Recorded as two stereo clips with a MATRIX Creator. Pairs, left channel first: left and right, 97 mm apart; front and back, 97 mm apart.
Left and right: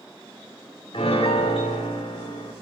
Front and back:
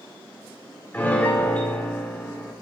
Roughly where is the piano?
Left.